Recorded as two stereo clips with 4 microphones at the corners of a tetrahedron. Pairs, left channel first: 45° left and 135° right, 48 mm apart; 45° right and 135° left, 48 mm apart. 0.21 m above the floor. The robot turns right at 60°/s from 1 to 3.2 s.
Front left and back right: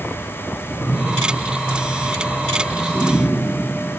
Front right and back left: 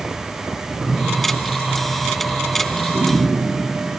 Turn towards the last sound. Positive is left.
turn(degrees=155)